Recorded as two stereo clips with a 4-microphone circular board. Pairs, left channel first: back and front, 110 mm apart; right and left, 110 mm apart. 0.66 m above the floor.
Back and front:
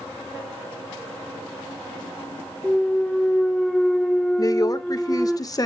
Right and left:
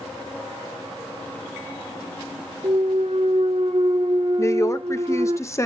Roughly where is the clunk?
Left.